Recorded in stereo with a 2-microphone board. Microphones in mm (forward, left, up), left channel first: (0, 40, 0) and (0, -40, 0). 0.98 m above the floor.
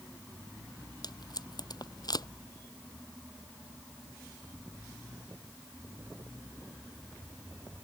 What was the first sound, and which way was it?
Tape being pulled, 60° left (ahead or behind).